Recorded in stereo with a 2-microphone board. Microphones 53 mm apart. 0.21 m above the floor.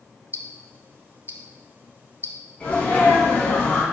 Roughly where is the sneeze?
Left.